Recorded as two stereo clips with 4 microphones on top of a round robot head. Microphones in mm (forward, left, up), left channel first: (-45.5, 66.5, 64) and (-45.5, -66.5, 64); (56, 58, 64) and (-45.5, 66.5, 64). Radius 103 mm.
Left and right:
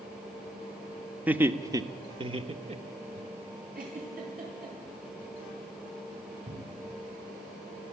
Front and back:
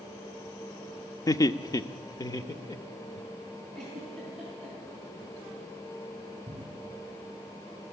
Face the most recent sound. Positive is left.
turn(degrees=-115)